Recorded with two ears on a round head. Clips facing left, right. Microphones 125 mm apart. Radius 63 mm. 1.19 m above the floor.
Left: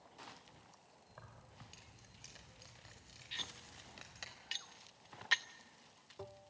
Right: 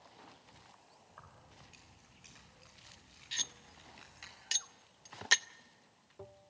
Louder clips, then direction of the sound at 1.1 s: Even; 30° left (ahead or behind).